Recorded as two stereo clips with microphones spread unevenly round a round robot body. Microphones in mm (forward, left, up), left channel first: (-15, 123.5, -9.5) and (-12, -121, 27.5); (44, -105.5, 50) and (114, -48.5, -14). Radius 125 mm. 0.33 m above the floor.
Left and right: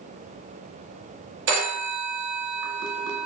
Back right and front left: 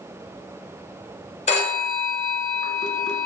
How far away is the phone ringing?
About 0.8 m.